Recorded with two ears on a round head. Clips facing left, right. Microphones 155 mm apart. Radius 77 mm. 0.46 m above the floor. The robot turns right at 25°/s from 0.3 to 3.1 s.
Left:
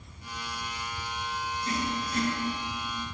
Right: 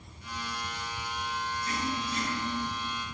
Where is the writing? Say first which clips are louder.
Left 3 dB; 30° left (ahead or behind), 8 m; by 2.3 s 45° left (ahead or behind), 8 m.